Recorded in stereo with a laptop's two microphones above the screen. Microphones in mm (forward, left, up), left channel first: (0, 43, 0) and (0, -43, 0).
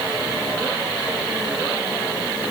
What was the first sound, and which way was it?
Only background noise.